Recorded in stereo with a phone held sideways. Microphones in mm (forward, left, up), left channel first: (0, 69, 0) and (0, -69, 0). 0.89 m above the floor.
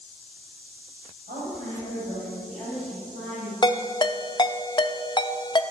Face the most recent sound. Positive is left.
turn(degrees=30)  # may be behind; listen again after turning